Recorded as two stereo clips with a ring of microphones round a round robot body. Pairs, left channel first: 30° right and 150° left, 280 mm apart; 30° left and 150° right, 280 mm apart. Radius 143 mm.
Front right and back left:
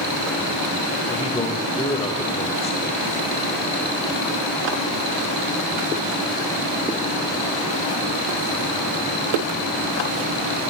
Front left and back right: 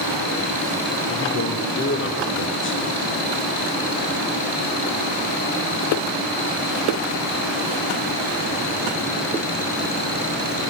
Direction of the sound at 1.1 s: 30° left.